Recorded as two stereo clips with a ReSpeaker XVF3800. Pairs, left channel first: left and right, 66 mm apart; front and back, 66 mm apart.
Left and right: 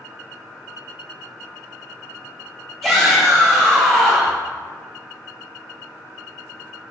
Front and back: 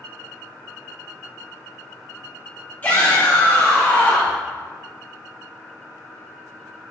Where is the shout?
Straight ahead, 0.6 m.